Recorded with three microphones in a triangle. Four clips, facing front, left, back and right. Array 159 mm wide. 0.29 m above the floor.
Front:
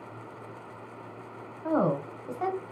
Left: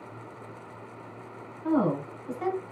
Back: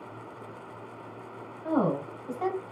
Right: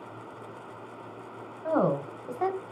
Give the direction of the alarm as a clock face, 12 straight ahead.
No alarm in this recording.